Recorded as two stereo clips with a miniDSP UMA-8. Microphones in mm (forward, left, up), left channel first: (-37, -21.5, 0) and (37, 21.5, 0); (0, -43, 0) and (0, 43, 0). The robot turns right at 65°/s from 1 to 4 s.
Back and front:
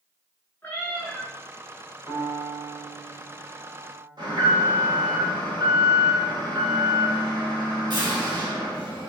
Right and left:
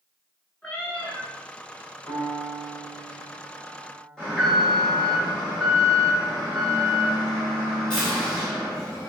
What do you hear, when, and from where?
0.6 s a cat meowing: 140° right, 1.2 m; by 1.3 s 120° right, 1.2 m
2.1 s a piano: 115° right, 1.8 m; by 4.1 s 10° left, 1.8 m
4.2 s an alarm: 10° right, 2 m